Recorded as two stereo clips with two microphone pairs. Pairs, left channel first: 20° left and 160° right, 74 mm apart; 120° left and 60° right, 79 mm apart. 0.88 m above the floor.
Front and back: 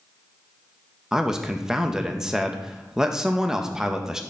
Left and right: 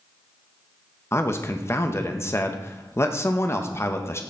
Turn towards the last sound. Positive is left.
turn(degrees=120)